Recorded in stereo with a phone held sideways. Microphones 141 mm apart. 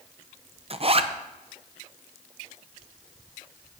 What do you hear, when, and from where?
0.7 s a zipper: 45° right (ahead or behind), 0.6 m